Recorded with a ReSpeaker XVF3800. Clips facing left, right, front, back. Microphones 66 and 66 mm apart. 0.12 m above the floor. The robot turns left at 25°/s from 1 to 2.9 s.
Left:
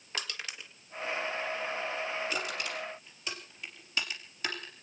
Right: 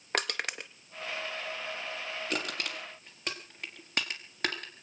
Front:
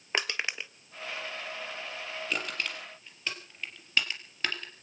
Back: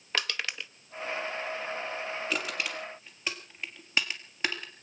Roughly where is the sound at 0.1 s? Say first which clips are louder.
Right 7 dB, front 1 dB; right.